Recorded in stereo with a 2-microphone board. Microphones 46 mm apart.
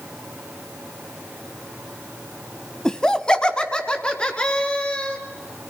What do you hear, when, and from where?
2.9 s laughter: 15° left (ahead or behind), 1.1 m; by 5.2 s 20° left (ahead or behind), 3.5 m